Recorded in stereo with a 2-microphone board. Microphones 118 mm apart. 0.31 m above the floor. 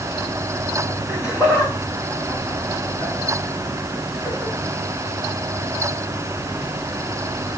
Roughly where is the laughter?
Centre.